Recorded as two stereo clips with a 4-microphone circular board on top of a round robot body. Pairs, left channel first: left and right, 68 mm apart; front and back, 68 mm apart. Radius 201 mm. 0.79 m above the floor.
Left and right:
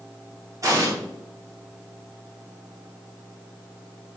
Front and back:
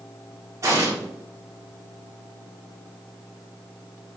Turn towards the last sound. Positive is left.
turn(degrees=-135)